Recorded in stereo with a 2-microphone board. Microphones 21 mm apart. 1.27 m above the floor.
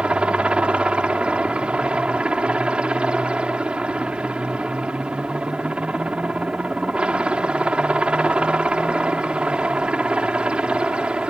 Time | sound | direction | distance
0.0 | a helicopter | 60° right (ahead or behind) | ?